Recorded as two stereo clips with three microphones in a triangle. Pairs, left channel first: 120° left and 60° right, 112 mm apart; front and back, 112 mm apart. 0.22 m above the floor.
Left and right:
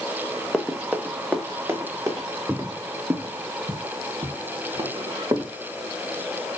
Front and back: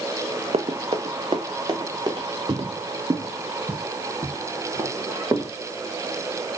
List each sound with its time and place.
0.5 s running footsteps: 155° right, 1.4 m; by 2.3 s 125° right, 3.5 m
2.5 s footsteps: 135° right, 0.5 m; by 5.5 s 115° right, 2.5 m